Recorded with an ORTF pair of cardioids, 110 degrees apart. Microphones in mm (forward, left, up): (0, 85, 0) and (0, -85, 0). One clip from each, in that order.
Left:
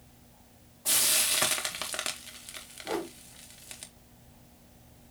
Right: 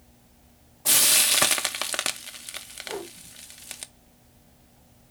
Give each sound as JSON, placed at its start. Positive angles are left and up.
{"t": 0.8, "sound": "frying", "azimuth_deg": -35, "distance_m": 0.8}
{"t": 2.9, "sound": "a whoosh", "azimuth_deg": 35, "distance_m": 2.0}